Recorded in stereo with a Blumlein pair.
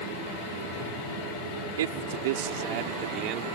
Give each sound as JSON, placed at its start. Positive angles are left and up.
{"t": 1.8, "sound": "a man speaking", "azimuth_deg": -60}